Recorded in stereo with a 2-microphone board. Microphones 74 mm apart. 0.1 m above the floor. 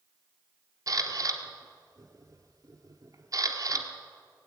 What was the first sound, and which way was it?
A camera shutter, 50° right (ahead or behind).